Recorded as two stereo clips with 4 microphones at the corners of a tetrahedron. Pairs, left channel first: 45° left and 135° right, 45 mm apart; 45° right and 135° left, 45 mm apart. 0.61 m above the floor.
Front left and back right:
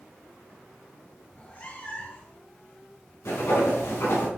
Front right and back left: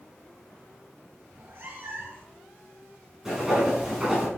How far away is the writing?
About 3.5 m.